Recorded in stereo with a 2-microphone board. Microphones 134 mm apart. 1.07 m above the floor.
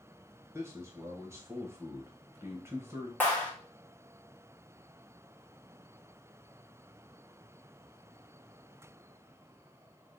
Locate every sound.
0.5 s a man speaking: 20° right (ahead or behind), 1.0 m
3.2 s a clap: 10° left (ahead or behind), 1.3 m